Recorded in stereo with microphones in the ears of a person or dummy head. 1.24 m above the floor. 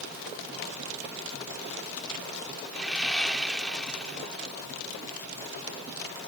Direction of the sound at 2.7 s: 5° left (ahead or behind).